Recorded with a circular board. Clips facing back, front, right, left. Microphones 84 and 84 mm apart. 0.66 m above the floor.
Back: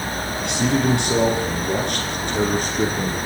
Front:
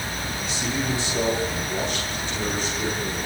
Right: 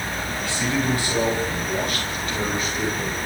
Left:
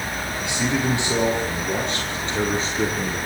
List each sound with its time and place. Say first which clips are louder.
0.4 s a man speaking: back 9 dB, left 1 dB; 160° left, 9.5 m; by 3.2 s 145° left, 11.5 m